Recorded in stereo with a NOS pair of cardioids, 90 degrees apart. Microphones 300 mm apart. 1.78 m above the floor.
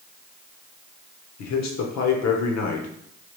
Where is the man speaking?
55° left, 0.9 m.